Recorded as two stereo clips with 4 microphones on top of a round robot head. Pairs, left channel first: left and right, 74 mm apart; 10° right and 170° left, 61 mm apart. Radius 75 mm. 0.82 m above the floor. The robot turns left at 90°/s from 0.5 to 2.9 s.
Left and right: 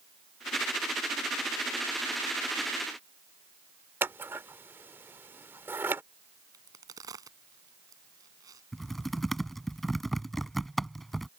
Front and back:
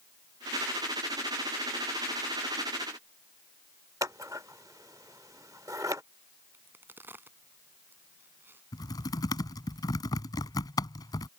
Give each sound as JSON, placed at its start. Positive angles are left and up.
{"t": 4.0, "sound": "scissors", "azimuth_deg": -140}
{"t": 6.5, "sound": "a crack", "azimuth_deg": -130}
{"t": 8.7, "sound": "typing on a keyboard", "azimuth_deg": 0}